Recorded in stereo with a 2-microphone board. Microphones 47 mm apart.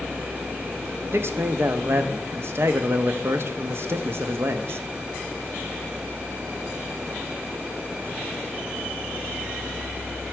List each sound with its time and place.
1.1 s a man speaking: 55° right (ahead or behind), 0.6 m